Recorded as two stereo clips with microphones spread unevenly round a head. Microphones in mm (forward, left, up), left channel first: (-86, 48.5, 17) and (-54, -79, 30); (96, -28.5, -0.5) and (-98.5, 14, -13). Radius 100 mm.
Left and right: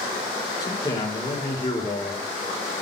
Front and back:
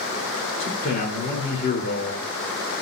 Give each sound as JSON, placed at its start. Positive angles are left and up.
{"t": 0.6, "sound": "a man speaking", "azimuth_deg": 35, "distance_m": 3.5}